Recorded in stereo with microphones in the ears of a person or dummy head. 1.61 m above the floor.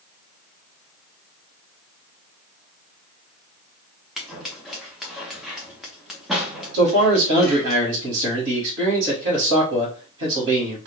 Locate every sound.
4.2 s scissors: centre (ahead or behind), 0.6 m
6.7 s a man speaking: 70° right (ahead or behind), 1.3 m